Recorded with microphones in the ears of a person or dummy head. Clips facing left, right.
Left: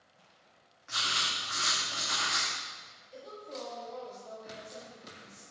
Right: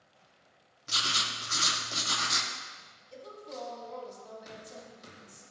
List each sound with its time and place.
0.9 s writing: 55° right (ahead or behind), 1.0 m
3.1 s a woman speaking: 85° right, 3 m